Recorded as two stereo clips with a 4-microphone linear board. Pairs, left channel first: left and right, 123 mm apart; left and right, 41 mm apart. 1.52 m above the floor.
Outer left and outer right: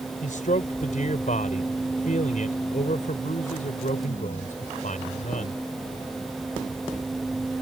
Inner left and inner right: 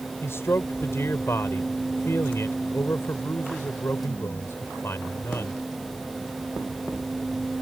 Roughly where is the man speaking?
Left.